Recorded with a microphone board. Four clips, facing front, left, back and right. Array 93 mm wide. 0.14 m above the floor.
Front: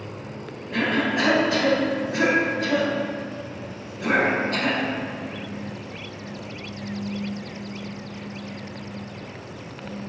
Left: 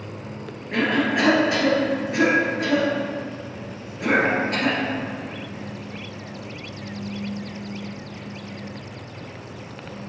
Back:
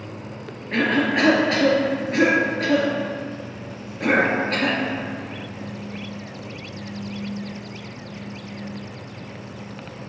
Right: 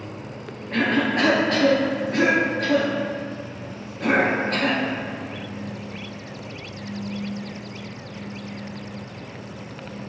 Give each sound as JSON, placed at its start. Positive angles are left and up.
{"t": 0.7, "sound": "a cough", "azimuth_deg": 165, "distance_m": 2.0}